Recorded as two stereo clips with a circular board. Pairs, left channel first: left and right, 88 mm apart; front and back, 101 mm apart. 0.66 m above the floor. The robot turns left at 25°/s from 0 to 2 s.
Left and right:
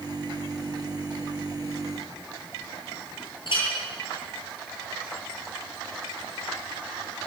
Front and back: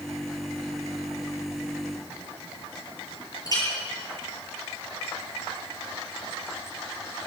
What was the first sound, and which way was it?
A clink, 55° left.